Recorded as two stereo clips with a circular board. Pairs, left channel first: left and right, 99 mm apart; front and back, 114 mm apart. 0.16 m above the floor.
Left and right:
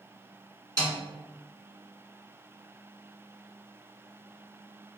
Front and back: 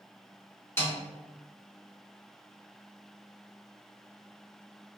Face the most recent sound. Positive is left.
turn(degrees=-55)